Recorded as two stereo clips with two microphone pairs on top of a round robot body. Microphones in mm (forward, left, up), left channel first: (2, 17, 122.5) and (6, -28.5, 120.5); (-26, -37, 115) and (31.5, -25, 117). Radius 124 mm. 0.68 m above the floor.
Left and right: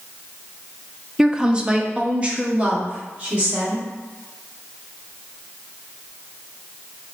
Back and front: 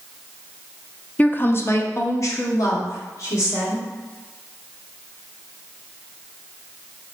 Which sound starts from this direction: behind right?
A woman speaking, at 1.2 s.